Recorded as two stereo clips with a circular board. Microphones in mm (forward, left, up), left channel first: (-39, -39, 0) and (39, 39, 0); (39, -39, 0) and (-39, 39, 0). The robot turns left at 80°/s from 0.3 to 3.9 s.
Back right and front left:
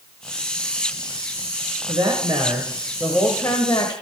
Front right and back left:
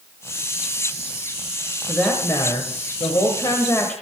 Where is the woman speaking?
45° left, 1.2 m; by 3.9 s 120° right, 1.2 m.